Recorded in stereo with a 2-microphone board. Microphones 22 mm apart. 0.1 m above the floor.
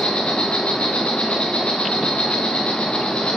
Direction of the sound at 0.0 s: 60° left (ahead or behind).